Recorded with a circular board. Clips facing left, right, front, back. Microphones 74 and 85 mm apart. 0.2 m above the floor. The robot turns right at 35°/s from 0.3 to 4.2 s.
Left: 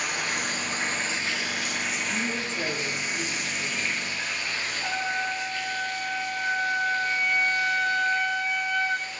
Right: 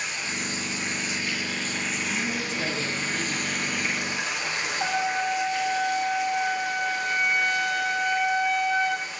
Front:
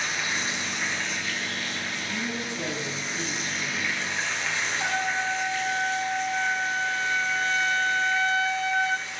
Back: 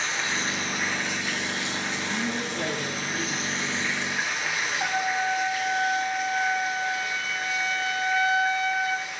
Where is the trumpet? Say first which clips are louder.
Right 4 dB, back 2 dB; 95° right, 10 m.